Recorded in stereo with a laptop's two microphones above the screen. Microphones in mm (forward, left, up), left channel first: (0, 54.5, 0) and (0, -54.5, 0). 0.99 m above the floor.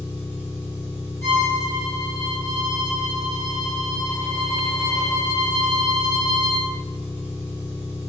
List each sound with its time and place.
0.0 s an engine running: 15° right (ahead or behind), 1.3 m
1.2 s a violin: 25° left (ahead or behind), 1.5 m